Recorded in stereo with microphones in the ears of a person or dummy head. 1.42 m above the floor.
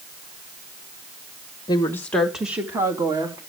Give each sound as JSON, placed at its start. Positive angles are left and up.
{"t": 1.7, "sound": "a woman speaking", "side_deg": 20, "distance_m": 1.5}